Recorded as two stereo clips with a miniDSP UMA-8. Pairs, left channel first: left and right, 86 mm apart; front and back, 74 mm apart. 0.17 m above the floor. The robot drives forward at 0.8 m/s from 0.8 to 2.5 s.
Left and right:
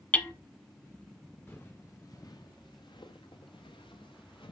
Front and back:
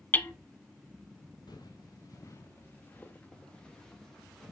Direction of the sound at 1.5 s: 25° left.